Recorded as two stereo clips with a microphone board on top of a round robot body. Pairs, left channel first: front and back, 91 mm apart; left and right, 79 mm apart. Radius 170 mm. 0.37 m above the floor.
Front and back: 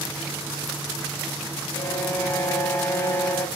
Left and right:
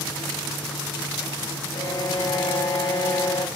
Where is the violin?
65° left, 3 m.